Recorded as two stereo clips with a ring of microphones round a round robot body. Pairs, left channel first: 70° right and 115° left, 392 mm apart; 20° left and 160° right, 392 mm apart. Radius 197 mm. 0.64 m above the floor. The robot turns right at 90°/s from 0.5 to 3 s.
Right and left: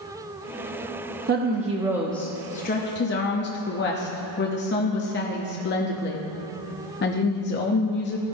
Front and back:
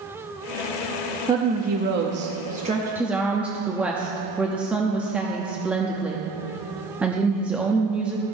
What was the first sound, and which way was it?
A woman speaking, 130° left.